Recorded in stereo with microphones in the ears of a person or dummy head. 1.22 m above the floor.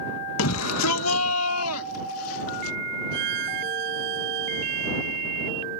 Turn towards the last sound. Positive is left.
turn(degrees=-60)  # may be behind; listen again after turning